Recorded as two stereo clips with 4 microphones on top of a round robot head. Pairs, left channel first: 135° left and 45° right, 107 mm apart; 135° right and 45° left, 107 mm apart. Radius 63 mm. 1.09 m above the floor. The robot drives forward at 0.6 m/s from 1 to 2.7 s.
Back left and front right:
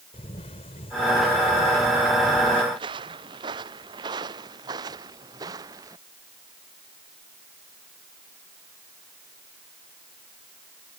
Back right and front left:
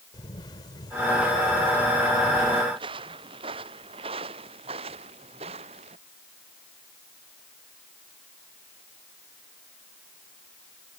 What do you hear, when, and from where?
0.1 s a camera shutter: 170° left; by 2.6 s 175° left
2.7 s footsteps: straight ahead; by 6.0 s 10° left